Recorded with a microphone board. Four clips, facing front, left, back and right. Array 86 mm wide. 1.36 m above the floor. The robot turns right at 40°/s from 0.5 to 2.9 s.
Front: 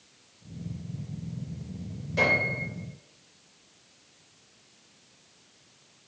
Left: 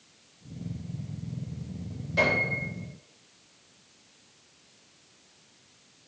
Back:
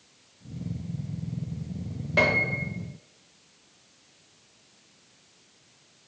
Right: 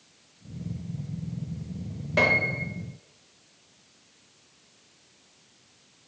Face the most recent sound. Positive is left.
turn(degrees=-110)